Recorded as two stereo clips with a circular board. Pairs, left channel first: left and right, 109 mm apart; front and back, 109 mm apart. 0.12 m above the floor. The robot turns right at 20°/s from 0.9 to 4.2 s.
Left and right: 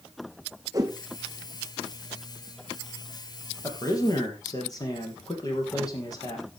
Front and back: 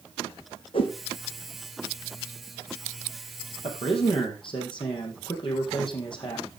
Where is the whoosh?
35° right, 2 m.